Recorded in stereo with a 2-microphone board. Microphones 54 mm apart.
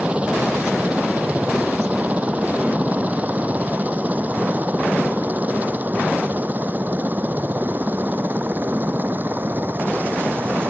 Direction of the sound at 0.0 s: 20° right (ahead or behind).